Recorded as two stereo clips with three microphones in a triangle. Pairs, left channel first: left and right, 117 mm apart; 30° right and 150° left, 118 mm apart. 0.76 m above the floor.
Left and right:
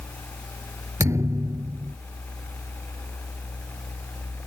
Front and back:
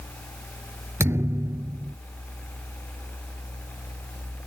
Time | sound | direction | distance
1.0 | a thud | 145° right | ?